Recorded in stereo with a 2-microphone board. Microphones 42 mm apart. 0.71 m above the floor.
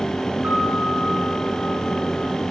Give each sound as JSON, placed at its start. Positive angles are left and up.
{"t": 0.4, "sound": "a piano", "side_deg": -35, "distance_m": 7.5}